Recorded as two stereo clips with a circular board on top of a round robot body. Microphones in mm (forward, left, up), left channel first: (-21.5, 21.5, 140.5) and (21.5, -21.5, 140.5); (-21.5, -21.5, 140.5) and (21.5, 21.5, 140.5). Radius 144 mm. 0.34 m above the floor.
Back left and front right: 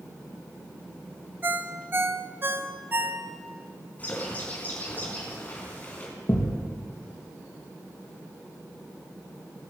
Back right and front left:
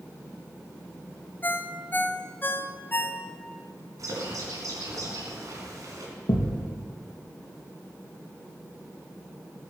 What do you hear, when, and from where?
1.4 s a ringtone: 90° right, 1.0 m
4.0 s a bird: 70° left, 3.5 m
6.3 s a thud: 170° right, 3 m